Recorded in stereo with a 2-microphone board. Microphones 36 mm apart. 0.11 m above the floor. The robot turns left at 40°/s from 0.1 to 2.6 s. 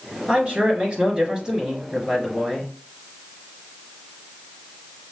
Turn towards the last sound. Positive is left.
turn(degrees=165)